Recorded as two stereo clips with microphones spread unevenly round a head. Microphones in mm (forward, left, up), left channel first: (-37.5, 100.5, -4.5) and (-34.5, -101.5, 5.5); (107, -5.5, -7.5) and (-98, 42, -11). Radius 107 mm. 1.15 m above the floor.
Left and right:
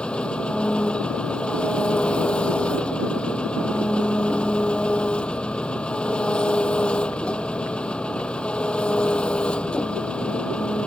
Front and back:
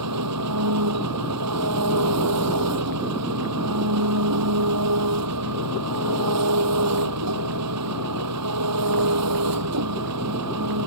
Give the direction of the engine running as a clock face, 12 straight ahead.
6 o'clock.